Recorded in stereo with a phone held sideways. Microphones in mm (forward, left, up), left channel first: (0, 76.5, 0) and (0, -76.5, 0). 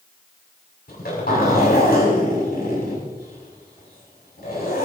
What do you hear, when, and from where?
0.9 s a zipper: 80° left, 6.5 m